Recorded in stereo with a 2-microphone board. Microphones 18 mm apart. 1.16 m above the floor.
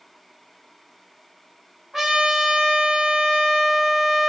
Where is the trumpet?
30° right (ahead or behind), 1.8 m.